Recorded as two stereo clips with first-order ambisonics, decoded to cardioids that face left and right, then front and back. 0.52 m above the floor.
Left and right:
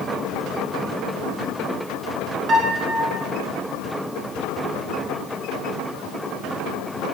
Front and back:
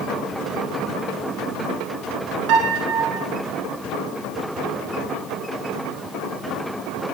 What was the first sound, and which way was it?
A piano, 150° right.